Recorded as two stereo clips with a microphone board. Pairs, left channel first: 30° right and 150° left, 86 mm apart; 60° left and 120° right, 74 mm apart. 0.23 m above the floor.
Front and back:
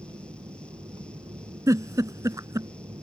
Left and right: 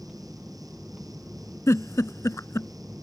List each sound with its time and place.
0.0 s an aircraft: 160° left; by 3.0 s 165° left
1.7 s a giggle: 105° left